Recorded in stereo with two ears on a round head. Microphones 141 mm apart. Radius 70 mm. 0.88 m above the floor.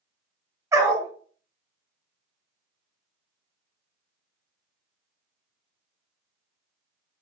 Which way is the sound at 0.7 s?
20° right (ahead or behind).